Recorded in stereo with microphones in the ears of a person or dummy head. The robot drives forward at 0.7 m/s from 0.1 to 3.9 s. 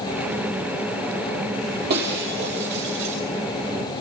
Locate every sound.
1.9 s breaking glass: 60° right (ahead or behind), 5.5 m; by 3.2 s 65° right (ahead or behind), 5 m